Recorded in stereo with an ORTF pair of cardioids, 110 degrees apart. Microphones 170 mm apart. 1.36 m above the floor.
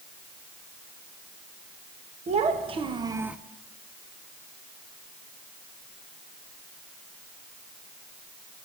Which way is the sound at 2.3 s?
40° right.